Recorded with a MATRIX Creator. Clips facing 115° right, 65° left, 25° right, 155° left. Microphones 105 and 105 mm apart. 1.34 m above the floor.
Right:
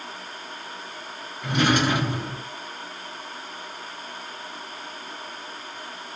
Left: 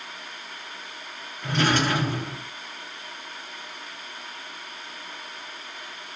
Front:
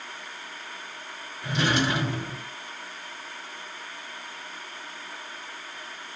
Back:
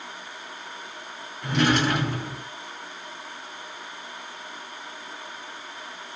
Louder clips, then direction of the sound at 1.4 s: Right 2 dB, back 3 dB; 175° left.